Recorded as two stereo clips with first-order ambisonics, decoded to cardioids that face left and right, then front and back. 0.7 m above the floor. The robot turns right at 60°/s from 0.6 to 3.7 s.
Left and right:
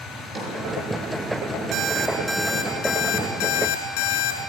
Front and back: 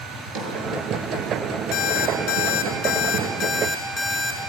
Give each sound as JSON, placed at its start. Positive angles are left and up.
{"t": 0.1, "sound": "a drawer", "azimuth_deg": -175, "distance_m": 6.5}
{"t": 1.7, "sound": "an alarm clock", "azimuth_deg": -50, "distance_m": 4.0}